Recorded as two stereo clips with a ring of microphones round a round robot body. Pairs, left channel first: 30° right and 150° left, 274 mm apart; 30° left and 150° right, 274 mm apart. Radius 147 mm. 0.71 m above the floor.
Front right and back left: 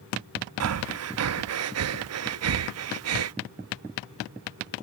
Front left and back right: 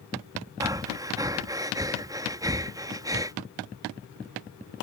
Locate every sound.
0.6 s breathing: 135° left